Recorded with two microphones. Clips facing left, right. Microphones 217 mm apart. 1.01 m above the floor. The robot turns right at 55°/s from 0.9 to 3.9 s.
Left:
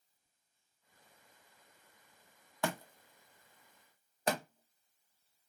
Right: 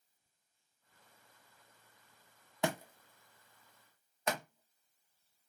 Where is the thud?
20° right (ahead or behind), 0.6 m; by 5.5 s 35° left (ahead or behind), 0.6 m.